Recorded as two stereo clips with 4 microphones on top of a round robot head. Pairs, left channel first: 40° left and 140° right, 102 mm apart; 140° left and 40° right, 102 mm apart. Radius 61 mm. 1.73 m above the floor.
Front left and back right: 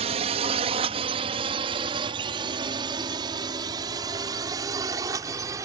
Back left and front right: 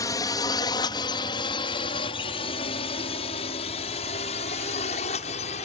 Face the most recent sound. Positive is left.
turn(degrees=160)